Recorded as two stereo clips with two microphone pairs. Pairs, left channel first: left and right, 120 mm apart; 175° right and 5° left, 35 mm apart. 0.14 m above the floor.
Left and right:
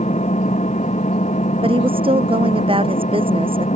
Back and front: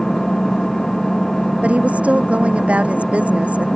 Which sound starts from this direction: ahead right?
A woman speaking, at 1.6 s.